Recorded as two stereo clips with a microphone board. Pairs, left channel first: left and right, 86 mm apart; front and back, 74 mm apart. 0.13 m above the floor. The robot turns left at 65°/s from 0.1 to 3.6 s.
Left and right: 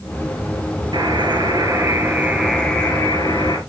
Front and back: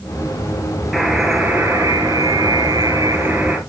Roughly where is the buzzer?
Right.